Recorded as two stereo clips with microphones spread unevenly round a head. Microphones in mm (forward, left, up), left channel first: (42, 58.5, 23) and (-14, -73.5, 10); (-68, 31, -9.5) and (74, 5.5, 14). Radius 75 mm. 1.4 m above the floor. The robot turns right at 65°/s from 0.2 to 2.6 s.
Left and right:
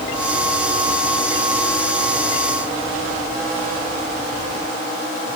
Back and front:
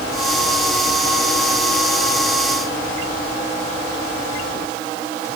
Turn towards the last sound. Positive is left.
No sound to turn to.